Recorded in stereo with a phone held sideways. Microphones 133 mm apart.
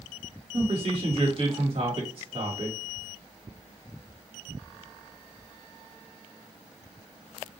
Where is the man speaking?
45° right (ahead or behind), 1.7 m.